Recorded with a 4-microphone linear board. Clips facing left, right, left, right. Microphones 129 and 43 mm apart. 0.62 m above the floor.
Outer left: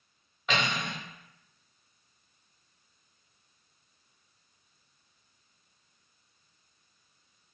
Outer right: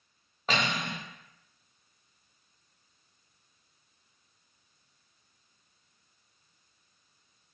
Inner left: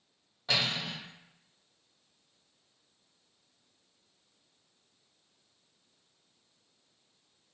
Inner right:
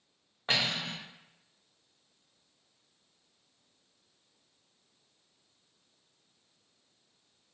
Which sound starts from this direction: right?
Cutlery clinking, at 0.5 s.